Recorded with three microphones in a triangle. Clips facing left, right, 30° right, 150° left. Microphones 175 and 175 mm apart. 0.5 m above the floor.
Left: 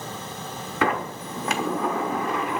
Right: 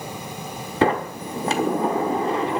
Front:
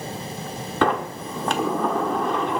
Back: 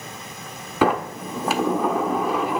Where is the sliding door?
130° right, 1.1 m.